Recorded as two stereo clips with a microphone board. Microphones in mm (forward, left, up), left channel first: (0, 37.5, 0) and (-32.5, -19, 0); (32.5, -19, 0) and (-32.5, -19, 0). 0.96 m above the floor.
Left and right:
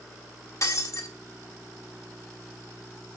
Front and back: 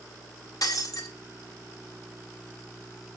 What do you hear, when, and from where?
0.6 s breaking glass: 25° left, 1.4 m